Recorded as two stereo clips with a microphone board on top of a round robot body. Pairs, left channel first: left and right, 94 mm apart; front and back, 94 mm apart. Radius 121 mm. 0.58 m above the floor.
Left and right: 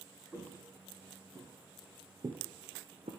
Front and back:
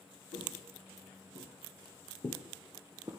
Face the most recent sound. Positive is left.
turn(degrees=-120)